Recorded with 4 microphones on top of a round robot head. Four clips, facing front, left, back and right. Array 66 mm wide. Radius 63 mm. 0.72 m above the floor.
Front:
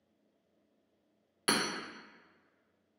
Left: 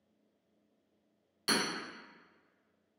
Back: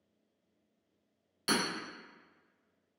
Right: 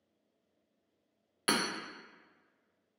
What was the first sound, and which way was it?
Hammering, 50° right.